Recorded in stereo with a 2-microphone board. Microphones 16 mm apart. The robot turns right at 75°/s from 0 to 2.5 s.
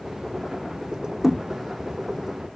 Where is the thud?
20° right (ahead or behind), 3 m; by 1.4 s 35° right (ahead or behind), 3 m.